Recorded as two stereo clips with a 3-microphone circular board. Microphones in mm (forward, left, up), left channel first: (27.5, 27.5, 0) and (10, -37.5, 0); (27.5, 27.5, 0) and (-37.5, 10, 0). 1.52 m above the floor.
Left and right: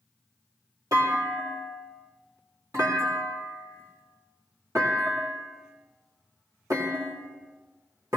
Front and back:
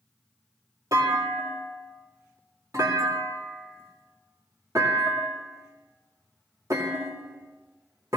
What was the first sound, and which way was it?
A clunk, 130° right.